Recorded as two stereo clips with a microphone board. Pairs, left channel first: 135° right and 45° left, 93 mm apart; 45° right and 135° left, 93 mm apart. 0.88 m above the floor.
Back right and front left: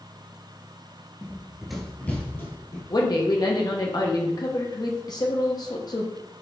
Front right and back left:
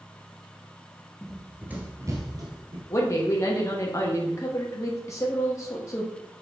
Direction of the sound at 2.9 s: 100° right.